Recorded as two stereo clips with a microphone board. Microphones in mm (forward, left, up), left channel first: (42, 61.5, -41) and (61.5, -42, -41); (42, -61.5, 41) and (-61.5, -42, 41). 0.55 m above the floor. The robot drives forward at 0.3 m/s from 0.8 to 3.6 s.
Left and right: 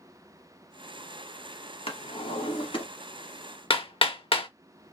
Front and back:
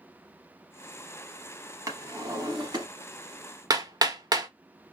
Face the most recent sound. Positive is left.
turn(degrees=120)